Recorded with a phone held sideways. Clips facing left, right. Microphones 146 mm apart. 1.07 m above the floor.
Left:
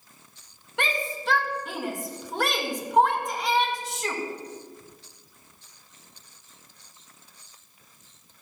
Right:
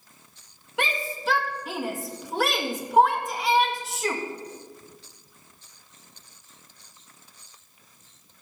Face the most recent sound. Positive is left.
turn(degrees=-5)  # may be behind; listen again after turning